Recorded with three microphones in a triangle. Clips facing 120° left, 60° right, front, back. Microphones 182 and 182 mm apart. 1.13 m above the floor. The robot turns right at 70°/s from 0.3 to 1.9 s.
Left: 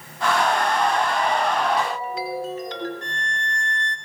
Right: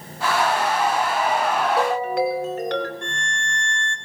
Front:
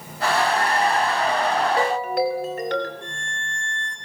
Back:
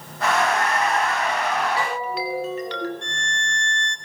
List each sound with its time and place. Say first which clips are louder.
1.6 s a ringtone: right 3 dB, front 4 dB; 55° right, 4.5 m; by 2.9 s 40° right, 4.5 m
3.0 s a violin: right 1 dB, back 3 dB; 170° left, 2.5 m